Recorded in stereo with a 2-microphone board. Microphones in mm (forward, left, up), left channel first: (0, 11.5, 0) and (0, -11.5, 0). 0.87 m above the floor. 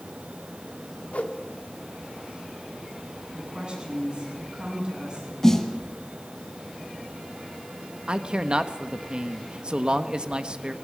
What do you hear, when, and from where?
1.1 s a whoosh: 80° left, 1.6 m
3.3 s a woman speaking: 45° right (ahead or behind), 9.5 m
5.4 s a snare drum: 20° left (ahead or behind), 2 m
8.1 s a man speaking: 45° right (ahead or behind), 1.2 m